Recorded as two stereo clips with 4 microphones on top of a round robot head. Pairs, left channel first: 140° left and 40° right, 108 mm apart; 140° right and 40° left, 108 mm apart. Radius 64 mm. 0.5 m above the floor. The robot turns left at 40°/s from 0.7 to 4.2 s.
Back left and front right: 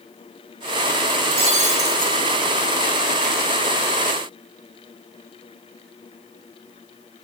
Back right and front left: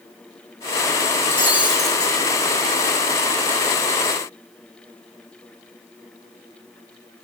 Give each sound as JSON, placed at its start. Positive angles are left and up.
{"t": 1.2, "sound": "breaking glass", "azimuth_deg": -25, "distance_m": 5.5}